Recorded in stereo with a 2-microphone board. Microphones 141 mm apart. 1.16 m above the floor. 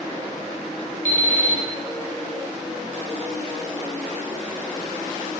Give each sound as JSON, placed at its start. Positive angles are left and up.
{"t": 1.1, "sound": "an alarm clock", "side_deg": 75, "distance_m": 2.5}